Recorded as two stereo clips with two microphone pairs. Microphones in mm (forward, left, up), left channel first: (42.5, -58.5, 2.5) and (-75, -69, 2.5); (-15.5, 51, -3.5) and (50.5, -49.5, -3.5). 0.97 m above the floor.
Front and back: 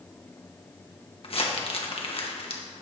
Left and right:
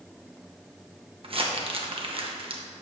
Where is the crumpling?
25° right, 1.0 m.